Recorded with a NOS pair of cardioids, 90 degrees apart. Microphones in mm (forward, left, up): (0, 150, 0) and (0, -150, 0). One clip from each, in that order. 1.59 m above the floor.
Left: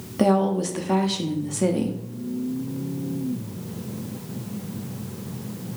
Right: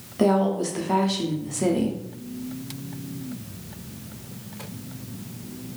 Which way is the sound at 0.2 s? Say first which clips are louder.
Left 1 dB; 15° left.